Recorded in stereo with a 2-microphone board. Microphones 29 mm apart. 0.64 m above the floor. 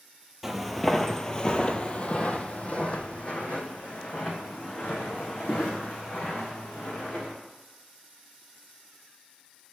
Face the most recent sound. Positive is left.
turn(degrees=45)  # may be behind; listen again after turning